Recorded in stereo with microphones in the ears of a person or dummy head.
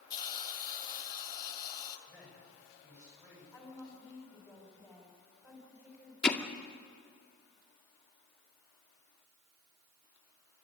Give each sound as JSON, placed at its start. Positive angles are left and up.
{"t": 0.1, "sound": "a hiss", "side_deg": 25, "distance_m": 1.7}
{"t": 2.1, "sound": "a man speaking", "side_deg": -15, "distance_m": 10.0}
{"t": 3.5, "sound": "a woman speaking", "side_deg": -5, "distance_m": 5.5}
{"t": 6.2, "sound": "hammering", "side_deg": 5, "distance_m": 1.8}